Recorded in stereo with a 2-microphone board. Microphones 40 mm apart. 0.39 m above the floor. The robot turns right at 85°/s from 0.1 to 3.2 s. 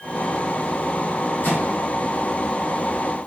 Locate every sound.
1.4 s a microwave: 60° left (ahead or behind), 1.5 m; by 1.8 s 50° left (ahead or behind), 1.5 m